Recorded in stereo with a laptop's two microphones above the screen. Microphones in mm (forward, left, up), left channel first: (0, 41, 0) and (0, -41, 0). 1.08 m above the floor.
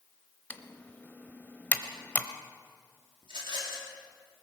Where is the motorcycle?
I don't hear a motorcycle.